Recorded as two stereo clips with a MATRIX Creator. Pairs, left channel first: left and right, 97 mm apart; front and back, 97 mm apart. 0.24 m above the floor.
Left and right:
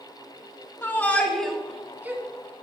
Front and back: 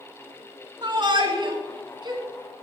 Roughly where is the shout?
Behind left.